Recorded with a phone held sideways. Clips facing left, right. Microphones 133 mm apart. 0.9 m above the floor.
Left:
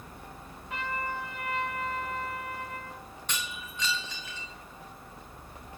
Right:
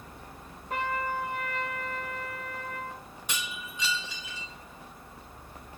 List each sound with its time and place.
0.7 s a trumpet: 45° right (ahead or behind), 3.5 m
3.3 s breaking glass: 10° right (ahead or behind), 4 m